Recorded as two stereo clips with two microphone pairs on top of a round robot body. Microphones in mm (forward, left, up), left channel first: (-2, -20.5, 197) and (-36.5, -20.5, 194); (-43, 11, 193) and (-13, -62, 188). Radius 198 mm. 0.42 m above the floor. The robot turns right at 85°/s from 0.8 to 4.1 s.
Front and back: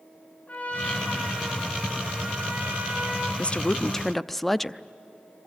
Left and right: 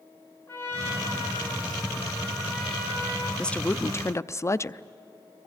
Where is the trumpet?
50° left, 7.5 m; by 3.3 s 95° right, 7.5 m.